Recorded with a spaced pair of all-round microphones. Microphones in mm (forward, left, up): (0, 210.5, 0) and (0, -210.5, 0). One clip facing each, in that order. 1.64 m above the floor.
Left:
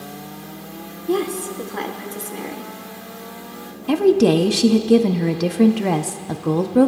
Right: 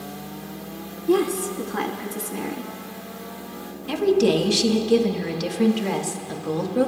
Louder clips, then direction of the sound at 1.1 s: Right 1 dB; 20° right (ahead or behind).